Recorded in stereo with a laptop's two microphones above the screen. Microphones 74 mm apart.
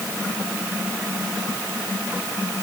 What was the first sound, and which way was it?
Only background noise.